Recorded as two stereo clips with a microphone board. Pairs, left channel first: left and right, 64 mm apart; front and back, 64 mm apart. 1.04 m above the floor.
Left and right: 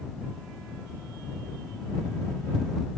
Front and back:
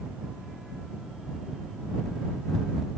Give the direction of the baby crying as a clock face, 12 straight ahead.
I don't hear a baby crying.